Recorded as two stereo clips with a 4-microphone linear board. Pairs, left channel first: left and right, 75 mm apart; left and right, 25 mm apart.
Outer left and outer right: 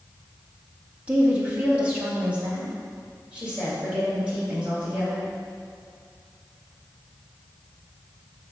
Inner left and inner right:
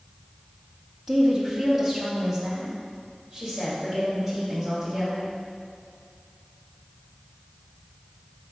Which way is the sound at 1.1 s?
15° right (ahead or behind).